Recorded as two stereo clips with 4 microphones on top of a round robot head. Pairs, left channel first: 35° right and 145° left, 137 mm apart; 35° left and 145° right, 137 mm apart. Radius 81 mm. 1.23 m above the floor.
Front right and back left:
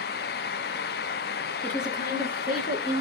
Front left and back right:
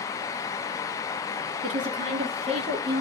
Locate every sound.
1.6 s a woman speaking: 115° right, 1.8 m; by 3.0 s 90° right, 3 m